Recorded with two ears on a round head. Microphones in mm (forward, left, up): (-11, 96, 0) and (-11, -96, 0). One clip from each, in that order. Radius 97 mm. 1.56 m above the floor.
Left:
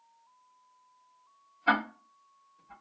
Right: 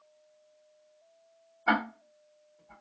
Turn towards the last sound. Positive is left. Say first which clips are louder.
# left 1 dB
turn(degrees=40)  # may be behind; listen again after turning